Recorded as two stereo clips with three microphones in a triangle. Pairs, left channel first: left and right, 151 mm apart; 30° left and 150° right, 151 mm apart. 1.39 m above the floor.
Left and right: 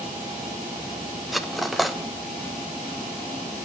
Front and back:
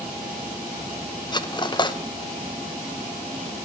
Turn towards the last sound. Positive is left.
turn(degrees=0)